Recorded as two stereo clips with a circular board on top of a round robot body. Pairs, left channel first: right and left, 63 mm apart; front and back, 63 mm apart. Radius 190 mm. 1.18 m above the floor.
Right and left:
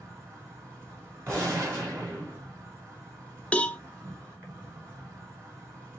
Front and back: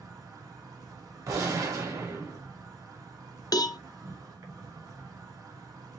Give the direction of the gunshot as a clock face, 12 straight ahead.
7 o'clock.